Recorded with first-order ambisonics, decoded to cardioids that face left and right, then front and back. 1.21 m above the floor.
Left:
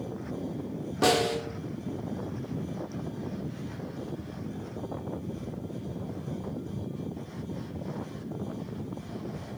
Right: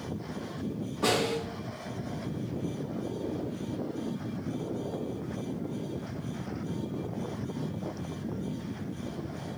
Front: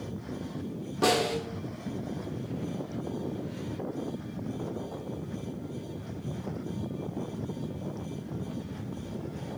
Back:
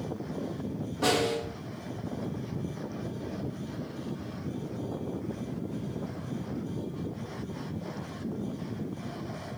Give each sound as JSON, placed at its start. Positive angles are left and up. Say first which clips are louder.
{"t": 1.0, "sound": "a snare drum", "louder": "left 3 dB, front 1 dB", "azimuth_deg": 75, "distance_m": 1.2}